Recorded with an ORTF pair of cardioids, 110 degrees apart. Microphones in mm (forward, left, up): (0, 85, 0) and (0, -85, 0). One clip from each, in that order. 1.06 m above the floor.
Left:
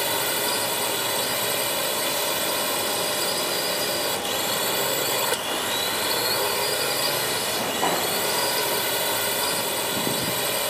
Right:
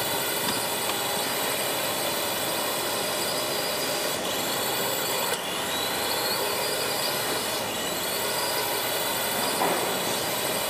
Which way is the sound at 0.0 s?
20° left.